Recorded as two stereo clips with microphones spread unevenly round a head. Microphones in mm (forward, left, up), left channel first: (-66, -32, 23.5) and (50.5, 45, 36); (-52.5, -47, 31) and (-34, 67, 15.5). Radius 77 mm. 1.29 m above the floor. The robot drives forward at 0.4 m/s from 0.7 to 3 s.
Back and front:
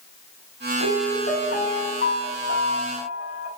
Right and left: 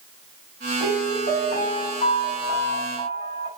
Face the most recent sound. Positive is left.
turn(degrees=-130)